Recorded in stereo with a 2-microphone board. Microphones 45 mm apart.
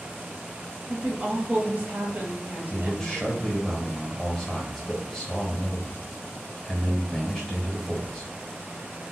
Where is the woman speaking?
35° right (ahead or behind), 1.1 m.